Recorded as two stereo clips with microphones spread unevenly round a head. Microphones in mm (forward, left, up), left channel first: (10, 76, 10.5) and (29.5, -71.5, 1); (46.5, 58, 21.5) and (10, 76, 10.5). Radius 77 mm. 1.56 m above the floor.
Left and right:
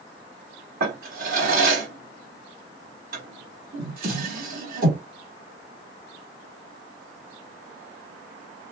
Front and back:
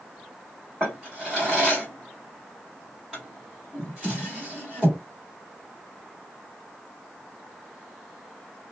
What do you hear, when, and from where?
0.8 s a drawer: 110° right, 1.7 m